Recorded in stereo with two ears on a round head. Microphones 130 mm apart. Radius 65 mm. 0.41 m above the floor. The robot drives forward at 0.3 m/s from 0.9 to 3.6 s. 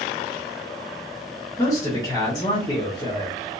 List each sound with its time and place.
1.6 s a man speaking: 25° left (ahead or behind), 1.1 m; by 3.4 s 30° left (ahead or behind), 0.9 m